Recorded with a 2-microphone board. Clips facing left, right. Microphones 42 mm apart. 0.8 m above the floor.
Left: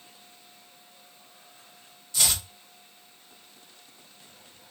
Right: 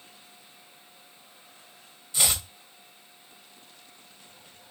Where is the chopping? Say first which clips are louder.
Even; 15° right (ahead or behind), 1.0 m.